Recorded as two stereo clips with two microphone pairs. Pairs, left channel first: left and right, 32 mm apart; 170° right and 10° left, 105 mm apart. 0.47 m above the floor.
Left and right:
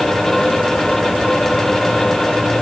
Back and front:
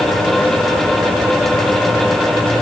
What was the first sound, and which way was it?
Only background noise.